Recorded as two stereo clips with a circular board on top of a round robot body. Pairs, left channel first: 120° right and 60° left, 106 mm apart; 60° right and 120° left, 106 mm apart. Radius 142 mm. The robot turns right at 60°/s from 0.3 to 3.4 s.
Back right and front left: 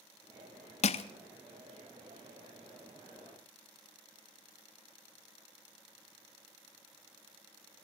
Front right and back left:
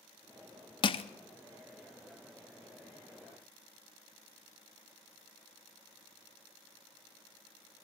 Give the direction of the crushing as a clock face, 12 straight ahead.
4 o'clock.